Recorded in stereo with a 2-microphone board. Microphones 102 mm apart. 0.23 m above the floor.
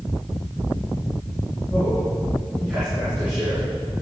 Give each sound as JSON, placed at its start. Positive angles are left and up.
{"t": 1.7, "sound": "a man speaking", "side_deg": -15, "distance_m": 3.0}